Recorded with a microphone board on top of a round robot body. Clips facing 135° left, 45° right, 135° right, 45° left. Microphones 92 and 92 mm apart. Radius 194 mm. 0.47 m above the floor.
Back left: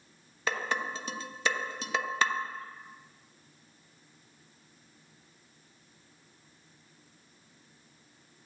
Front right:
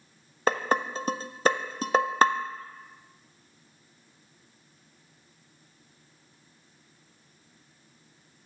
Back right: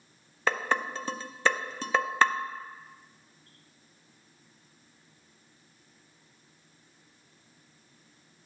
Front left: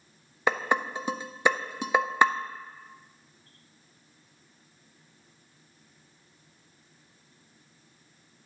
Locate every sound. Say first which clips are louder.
0.5 s dishes clattering: front right 7 dB, front left 2 dB; 30° right, 0.7 m